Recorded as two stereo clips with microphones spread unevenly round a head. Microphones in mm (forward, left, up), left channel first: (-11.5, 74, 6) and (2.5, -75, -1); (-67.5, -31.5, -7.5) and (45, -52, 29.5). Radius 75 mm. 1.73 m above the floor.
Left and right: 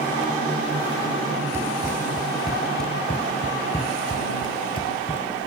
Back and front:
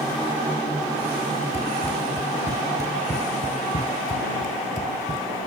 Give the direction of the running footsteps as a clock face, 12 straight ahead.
5 o'clock.